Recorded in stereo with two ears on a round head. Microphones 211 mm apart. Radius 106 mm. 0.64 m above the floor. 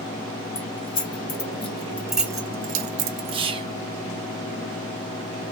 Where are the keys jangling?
40° left (ahead or behind), 1.5 m; by 3.4 s 60° right (ahead or behind), 0.9 m.